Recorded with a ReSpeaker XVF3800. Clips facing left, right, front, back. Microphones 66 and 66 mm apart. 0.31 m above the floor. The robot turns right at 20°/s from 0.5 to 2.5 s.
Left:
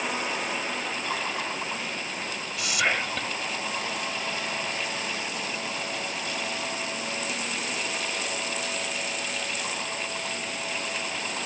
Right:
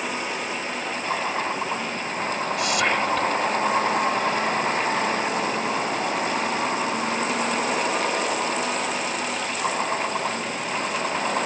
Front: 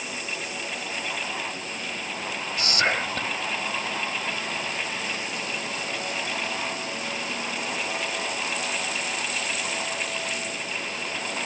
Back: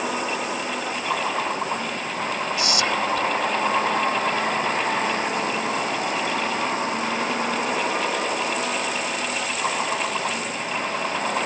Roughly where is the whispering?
Ahead.